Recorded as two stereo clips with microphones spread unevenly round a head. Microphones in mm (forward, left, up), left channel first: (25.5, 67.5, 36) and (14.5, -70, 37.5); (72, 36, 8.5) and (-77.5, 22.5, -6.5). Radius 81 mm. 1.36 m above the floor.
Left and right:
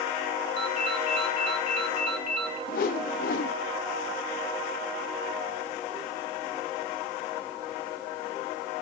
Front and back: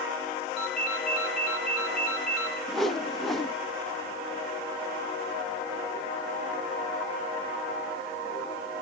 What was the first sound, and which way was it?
A ringtone, 85° right.